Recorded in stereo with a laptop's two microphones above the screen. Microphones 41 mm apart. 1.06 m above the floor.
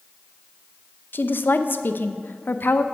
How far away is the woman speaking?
About 0.6 m.